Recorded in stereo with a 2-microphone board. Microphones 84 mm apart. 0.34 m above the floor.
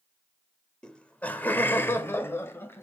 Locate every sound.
0.8 s laughter: 10° left (ahead or behind), 1.1 m; by 2.8 s 25° left (ahead or behind), 1.7 m